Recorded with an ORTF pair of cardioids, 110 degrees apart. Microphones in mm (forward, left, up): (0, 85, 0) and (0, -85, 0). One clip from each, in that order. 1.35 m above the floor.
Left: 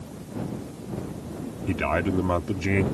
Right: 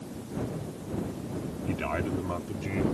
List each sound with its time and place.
1.7 s a man speaking: 30° left; by 2.9 s 65° left